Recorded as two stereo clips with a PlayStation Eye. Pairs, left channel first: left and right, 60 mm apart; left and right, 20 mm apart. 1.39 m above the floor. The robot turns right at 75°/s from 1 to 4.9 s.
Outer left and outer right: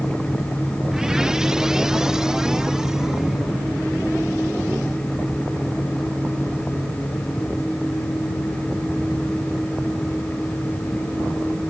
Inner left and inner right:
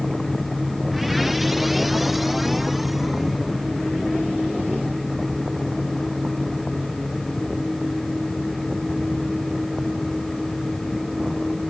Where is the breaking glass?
No breaking glass in this recording.